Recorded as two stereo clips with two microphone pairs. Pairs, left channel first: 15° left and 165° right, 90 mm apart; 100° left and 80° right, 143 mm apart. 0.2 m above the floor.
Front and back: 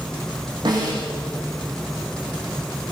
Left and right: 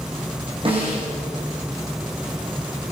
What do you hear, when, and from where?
0.7 s a snare drum: 130° right, 10 m